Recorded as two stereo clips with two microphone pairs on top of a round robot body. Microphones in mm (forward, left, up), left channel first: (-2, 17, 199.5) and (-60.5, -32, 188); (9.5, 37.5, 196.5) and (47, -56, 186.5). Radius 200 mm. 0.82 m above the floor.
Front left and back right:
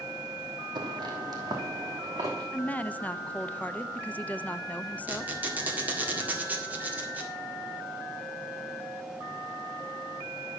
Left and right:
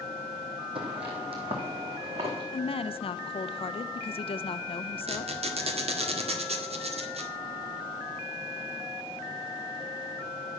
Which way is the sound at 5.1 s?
70° right.